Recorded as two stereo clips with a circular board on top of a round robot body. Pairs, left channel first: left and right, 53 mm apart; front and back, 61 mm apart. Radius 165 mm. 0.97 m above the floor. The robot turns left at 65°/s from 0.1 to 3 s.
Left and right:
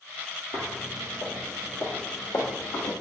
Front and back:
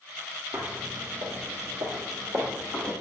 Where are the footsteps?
110° right, 1.0 m; by 2.9 s 85° left, 2 m.